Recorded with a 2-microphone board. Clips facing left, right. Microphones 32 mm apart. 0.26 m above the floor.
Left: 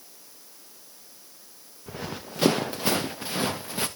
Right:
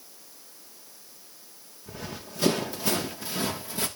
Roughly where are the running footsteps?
Left.